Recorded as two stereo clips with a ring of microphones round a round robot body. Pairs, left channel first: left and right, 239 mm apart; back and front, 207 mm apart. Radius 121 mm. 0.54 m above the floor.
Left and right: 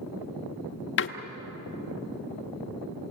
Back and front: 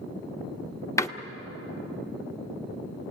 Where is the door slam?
110° left, 1.1 m.